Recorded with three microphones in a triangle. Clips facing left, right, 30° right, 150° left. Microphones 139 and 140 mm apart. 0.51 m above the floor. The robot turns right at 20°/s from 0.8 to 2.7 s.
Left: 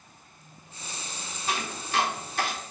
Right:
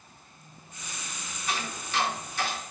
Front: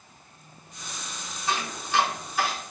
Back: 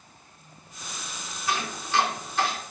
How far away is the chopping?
About 3.5 m.